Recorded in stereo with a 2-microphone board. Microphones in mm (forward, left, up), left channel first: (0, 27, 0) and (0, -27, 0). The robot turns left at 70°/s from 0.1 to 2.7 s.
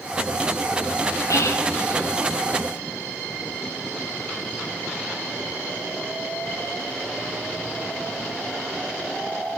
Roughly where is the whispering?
Left.